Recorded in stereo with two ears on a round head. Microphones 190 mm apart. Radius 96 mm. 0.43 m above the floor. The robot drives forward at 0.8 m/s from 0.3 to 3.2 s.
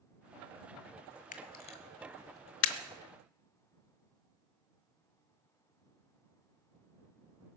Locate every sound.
1.3 s a camera shutter: 40° left (ahead or behind), 1.4 m; by 2.8 s 65° left (ahead or behind), 1.0 m